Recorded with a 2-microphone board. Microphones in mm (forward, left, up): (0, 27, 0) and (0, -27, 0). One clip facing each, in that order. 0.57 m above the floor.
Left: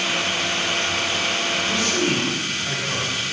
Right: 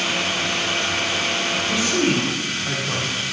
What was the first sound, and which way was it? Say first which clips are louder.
A man speaking: right 3 dB; 15° right (ahead or behind).